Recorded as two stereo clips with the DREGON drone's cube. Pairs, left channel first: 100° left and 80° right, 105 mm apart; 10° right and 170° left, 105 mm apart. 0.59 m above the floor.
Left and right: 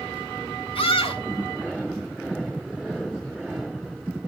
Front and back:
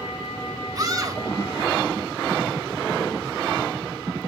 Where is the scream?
120° left, 3 m.